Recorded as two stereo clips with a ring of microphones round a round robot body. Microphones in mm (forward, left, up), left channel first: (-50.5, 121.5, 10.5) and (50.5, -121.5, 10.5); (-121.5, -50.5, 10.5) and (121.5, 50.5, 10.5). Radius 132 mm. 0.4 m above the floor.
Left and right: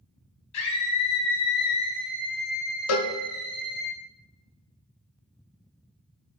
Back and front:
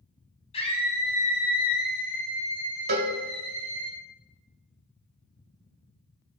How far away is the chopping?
No chopping in this recording.